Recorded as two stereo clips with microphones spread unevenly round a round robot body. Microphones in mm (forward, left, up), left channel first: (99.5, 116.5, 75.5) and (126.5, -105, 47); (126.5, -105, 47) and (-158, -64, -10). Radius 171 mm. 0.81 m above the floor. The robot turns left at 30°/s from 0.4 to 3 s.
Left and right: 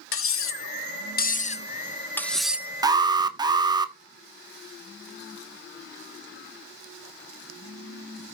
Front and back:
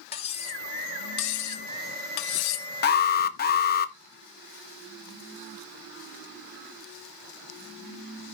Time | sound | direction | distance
0.1 | cutlery clinking | 65° left | 0.8 m
2.8 | an alarm | 45° right | 1.2 m